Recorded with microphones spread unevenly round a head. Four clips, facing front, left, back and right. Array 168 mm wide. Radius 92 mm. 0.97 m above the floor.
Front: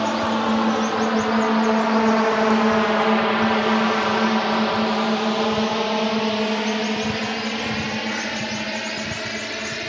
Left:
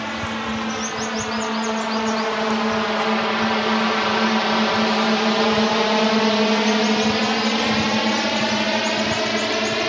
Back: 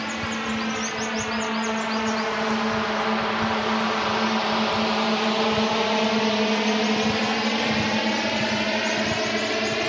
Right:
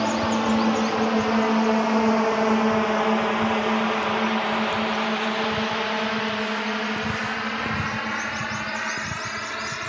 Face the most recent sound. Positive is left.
turn(degrees=110)